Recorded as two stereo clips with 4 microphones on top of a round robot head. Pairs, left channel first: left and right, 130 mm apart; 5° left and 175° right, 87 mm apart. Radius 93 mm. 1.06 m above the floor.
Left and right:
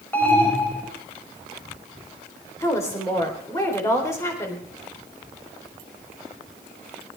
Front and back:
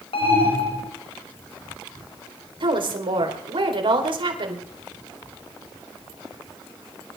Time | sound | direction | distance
0.1 | an alarm | 15° left | 6 m
2.6 | a woman speaking | 160° left | 3.5 m